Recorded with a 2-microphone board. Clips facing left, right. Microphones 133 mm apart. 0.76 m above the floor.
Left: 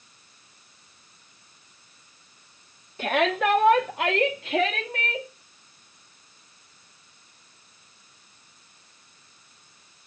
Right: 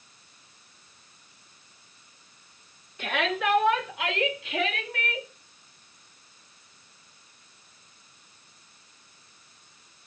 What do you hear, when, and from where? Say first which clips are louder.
3.0 s a shout: left 5 dB; 35° left (ahead or behind), 1.4 m; by 5.3 s 30° left (ahead or behind), 2.0 m